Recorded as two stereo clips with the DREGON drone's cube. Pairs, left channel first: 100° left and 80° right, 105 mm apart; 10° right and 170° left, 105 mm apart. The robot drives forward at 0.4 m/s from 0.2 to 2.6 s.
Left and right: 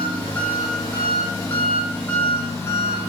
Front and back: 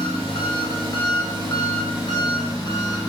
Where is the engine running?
25° left, 3 m; by 3.1 s 35° left, 2 m.